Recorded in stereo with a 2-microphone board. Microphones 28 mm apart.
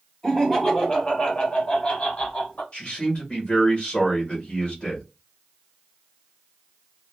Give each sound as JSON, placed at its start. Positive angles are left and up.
{"t": 0.2, "sound": "laughter", "side_deg": 15, "distance_m": 1.4}
{"t": 2.7, "sound": "a man speaking", "side_deg": 35, "distance_m": 1.3}